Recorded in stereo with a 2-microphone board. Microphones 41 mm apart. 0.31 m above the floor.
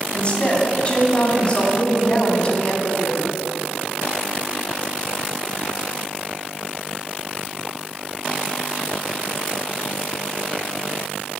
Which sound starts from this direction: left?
A woman speaking, at 0.1 s.